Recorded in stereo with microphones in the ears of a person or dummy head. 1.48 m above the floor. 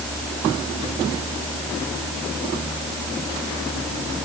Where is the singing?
I don't hear singing.